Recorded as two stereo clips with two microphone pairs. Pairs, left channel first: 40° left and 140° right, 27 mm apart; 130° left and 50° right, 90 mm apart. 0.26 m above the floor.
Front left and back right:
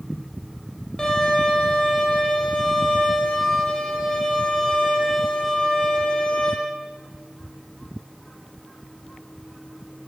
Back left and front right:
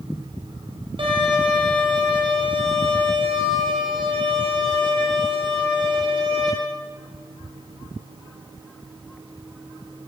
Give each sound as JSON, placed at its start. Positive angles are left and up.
{"t": 1.0, "sound": "a violin", "azimuth_deg": -30, "distance_m": 6.5}